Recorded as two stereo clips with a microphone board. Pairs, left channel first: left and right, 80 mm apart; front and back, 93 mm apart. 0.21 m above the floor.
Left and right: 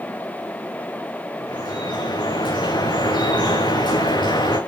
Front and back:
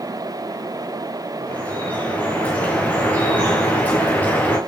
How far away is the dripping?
About 9.5 m.